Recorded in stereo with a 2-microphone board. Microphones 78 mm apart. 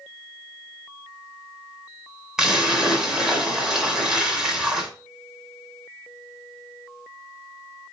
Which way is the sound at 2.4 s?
5° right (ahead or behind).